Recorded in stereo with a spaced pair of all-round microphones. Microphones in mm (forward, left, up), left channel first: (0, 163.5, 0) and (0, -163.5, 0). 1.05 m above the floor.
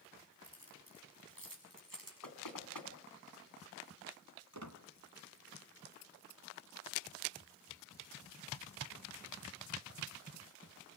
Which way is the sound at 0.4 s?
85° right.